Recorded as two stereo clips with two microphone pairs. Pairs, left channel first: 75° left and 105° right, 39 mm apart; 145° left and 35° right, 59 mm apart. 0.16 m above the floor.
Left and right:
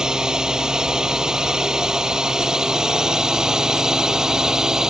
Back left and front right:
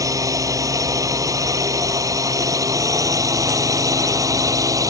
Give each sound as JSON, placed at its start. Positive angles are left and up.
{"t": 0.0, "sound": "a drone", "azimuth_deg": -35}